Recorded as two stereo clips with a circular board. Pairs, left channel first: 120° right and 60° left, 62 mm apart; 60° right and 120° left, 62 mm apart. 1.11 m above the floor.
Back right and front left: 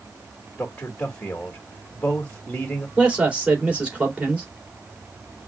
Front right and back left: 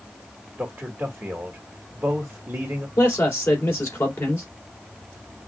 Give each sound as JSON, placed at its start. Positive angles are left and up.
{"t": 0.6, "sound": "a man speaking", "azimuth_deg": 170, "distance_m": 1.6}
{"t": 3.0, "sound": "a man speaking", "azimuth_deg": -10, "distance_m": 2.5}